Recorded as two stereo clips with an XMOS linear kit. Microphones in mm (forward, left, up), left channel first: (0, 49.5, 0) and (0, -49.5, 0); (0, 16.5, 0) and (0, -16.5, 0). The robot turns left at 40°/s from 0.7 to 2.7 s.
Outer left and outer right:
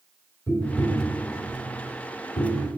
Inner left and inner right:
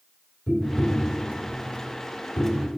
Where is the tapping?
30° left (ahead or behind), 2.5 m; by 2.7 s 60° left (ahead or behind), 2.5 m.